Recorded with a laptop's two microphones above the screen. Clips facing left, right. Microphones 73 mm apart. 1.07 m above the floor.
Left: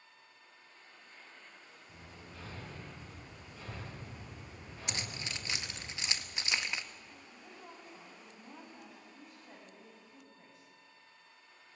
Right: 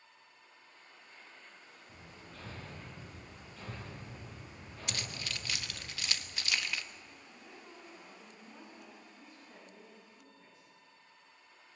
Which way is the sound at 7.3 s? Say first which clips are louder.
Left 2 dB; 70° left (ahead or behind).